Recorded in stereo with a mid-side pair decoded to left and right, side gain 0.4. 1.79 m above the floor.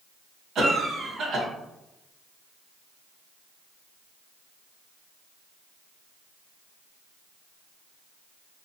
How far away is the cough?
About 1.3 m.